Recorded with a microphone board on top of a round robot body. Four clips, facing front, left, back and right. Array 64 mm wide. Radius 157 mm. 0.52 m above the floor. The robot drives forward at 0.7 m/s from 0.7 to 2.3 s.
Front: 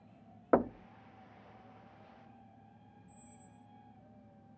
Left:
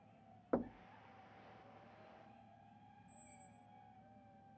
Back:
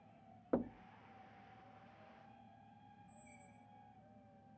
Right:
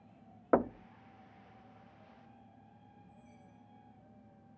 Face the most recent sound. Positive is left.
turn(degrees=180)